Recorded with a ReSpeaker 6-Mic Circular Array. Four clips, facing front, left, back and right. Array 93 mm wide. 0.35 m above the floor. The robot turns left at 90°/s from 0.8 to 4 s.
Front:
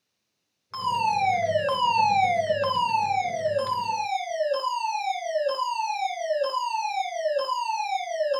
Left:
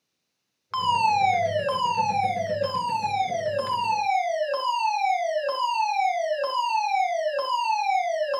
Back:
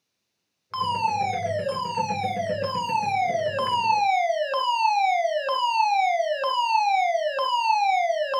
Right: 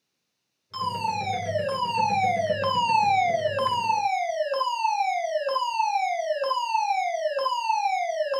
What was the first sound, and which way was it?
A fire alarm, 110° left.